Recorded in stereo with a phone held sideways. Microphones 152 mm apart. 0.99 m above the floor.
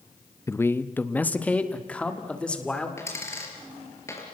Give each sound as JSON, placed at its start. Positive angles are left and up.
{"t": 0.5, "sound": "a man speaking", "side_deg": 20, "distance_m": 0.7}
{"t": 3.0, "sound": "a dropped coin", "side_deg": 20, "distance_m": 4.5}